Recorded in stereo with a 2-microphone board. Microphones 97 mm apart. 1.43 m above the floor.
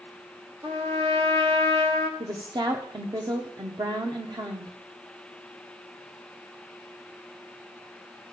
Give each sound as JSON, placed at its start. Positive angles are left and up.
{"t": 0.6, "sound": "a trumpet", "side_deg": -70, "distance_m": 1.5}
{"t": 2.2, "sound": "a woman speaking", "side_deg": -50, "distance_m": 0.8}